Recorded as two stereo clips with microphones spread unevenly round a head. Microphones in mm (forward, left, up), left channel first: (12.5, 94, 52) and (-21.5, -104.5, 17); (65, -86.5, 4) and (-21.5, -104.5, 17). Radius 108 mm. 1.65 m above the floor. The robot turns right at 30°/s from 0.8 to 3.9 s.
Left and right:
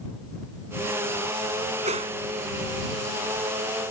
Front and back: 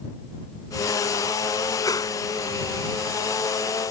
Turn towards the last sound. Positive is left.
turn(degrees=25)